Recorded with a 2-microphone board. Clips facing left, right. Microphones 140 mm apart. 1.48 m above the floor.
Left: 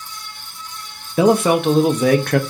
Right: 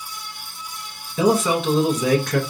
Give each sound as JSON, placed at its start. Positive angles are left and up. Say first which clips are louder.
{"t": 1.2, "sound": "a man speaking", "louder": "left 4 dB", "side_deg": 60, "distance_m": 0.9}